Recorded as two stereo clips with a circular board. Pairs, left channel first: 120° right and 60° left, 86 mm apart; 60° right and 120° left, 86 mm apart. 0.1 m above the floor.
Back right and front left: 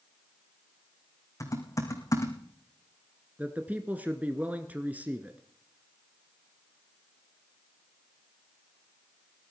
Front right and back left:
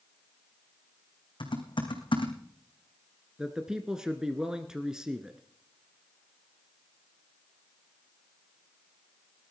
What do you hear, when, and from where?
1.4 s typing on a keyboard: 70° right, 2.5 m
3.4 s a man speaking: 55° left, 1.1 m